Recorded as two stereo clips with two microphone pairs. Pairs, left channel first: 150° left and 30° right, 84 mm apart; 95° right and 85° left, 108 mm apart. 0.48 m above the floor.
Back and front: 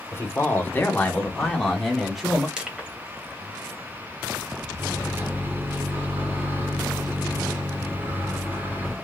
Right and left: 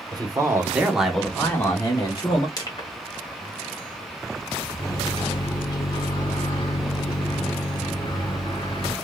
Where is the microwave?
75° right, 1.2 m.